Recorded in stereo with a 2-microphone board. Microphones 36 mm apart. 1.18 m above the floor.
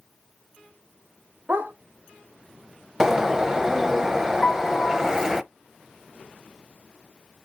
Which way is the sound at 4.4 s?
5° left (ahead or behind).